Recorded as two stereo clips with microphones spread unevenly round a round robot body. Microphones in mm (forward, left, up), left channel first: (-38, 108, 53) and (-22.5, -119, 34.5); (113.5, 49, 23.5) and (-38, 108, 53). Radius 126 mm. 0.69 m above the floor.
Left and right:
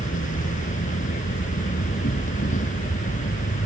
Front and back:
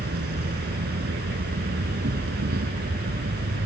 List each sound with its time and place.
0.0 s an insect: 150° left